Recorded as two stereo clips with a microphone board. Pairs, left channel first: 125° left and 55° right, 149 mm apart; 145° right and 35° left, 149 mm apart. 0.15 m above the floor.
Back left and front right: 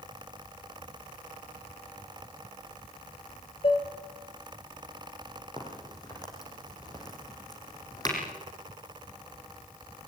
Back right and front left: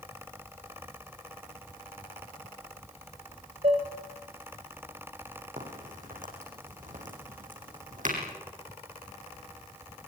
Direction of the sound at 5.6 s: 60° left.